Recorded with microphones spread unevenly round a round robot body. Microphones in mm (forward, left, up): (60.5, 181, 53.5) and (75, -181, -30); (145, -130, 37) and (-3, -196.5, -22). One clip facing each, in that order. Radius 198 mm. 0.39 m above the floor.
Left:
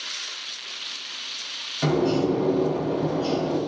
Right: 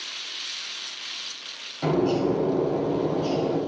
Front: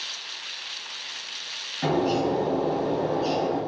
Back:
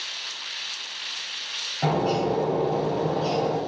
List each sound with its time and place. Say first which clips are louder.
1.8 s a bird: left 1 dB, even; 160° left, 1.7 m